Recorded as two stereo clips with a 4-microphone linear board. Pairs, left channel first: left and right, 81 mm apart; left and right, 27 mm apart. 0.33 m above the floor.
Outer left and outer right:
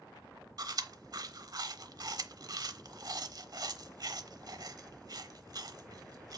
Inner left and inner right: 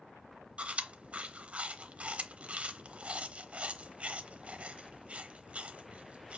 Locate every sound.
0.6 s chewing: 50° right (ahead or behind), 0.7 m